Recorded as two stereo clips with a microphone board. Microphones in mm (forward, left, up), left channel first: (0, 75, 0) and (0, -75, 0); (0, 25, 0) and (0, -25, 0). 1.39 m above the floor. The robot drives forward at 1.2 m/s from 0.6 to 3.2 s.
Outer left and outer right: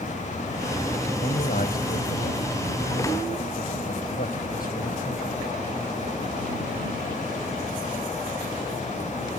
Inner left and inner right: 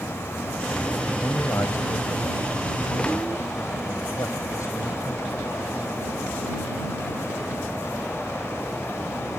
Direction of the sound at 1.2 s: 75° left (ahead or behind).